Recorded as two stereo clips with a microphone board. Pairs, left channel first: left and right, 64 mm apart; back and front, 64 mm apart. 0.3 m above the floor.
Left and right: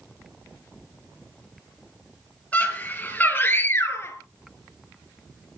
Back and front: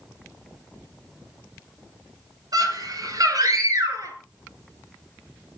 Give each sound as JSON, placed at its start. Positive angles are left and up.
{"t": 2.5, "sound": "a scream", "azimuth_deg": 20, "distance_m": 5.0}